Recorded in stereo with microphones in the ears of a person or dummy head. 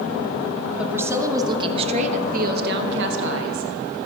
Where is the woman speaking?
10° right (ahead or behind), 1.3 m; by 3.7 s 80° right, 1.4 m.